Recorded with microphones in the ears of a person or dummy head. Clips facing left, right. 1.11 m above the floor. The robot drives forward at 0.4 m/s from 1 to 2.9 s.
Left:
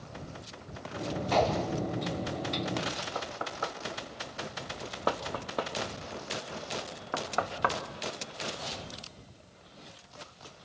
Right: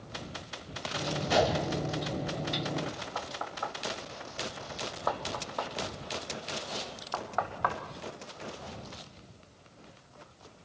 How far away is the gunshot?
About 0.5 m.